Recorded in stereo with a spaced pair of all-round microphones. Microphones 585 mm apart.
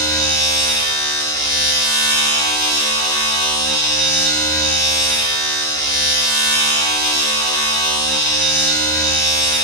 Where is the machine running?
5° left (ahead or behind), 1.1 m.